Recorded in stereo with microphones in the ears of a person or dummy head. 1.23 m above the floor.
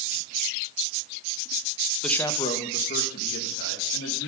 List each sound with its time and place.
2.0 s a man speaking: 5° left (ahead or behind), 0.9 m; by 4.3 s 75° left (ahead or behind), 2.5 m